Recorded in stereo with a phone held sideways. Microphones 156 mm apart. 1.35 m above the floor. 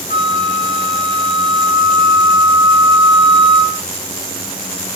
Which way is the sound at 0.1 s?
55° right (ahead or behind).